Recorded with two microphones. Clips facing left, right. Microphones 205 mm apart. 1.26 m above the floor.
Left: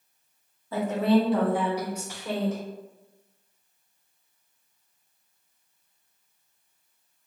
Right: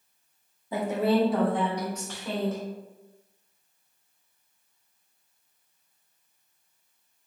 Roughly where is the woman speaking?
Centre.